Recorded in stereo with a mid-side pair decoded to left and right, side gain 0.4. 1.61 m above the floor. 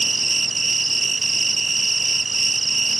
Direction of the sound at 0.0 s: 30° right.